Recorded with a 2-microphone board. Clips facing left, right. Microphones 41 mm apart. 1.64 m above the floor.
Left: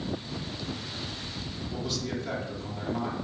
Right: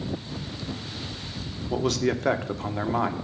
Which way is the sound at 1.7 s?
70° right (ahead or behind).